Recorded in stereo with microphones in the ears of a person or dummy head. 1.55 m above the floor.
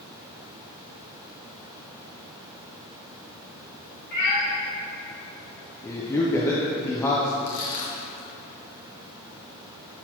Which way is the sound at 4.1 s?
40° left (ahead or behind).